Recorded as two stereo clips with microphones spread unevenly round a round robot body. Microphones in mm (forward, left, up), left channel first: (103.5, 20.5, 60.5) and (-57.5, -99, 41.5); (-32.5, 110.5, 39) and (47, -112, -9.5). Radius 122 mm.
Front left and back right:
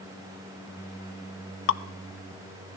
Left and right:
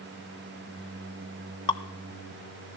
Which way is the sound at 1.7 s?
30° left.